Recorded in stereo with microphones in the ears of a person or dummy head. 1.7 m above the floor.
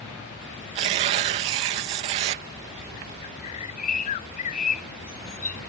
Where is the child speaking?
I don't hear a child speaking.